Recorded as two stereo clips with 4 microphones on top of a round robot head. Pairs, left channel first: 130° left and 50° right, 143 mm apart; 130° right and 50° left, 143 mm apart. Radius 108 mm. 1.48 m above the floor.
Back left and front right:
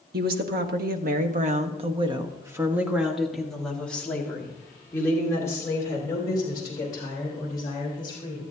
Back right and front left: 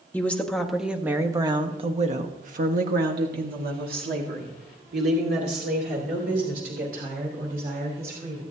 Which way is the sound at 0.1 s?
50° right.